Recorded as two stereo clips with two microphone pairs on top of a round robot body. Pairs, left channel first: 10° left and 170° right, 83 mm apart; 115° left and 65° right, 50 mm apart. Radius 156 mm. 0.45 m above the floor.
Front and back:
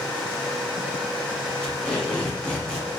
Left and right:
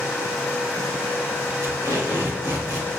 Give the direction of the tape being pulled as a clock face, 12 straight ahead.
2 o'clock.